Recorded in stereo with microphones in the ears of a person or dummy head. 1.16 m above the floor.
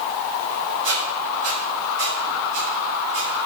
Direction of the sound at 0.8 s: 80° right.